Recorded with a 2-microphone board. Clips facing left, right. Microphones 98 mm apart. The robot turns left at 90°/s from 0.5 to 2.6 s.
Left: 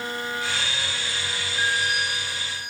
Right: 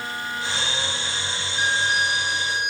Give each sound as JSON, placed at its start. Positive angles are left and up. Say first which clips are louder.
{"t": 1.6, "sound": "a violin", "louder": "right 3 dB", "azimuth_deg": -10}